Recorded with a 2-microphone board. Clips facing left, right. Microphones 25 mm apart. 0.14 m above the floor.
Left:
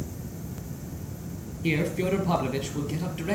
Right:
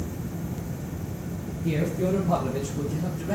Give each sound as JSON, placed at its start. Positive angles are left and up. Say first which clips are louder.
{"t": 1.6, "sound": "a man speaking", "louder": "even", "side_deg": 60, "distance_m": 2.5}